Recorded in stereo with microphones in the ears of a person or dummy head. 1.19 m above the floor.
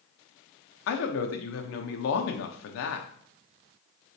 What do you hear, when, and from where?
0.9 s a man speaking: 70° left (ahead or behind), 0.6 m